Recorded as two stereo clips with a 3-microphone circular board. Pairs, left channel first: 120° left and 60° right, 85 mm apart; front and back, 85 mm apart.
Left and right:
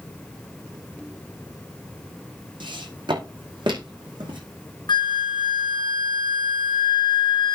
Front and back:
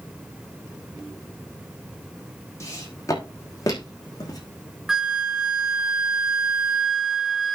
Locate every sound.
2.6 s footsteps: 50° right, 4 m; by 4.4 s 40° right, 4.5 m
4.9 s a flute: 95° left, 1.4 m